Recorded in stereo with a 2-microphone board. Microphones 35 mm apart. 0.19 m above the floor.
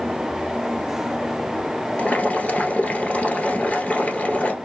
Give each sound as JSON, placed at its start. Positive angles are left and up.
{"t": 2.0, "sound": "boiling", "side_deg": 45, "distance_m": 1.1}